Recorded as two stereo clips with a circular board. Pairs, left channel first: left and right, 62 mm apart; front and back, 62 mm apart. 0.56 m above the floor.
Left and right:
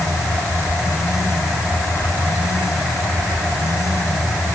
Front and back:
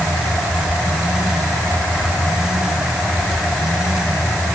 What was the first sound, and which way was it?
Only background noise.